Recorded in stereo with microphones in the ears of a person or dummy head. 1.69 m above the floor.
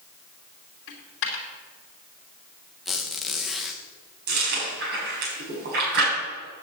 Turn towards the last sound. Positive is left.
turn(degrees=-55)  # may be behind; listen again after turning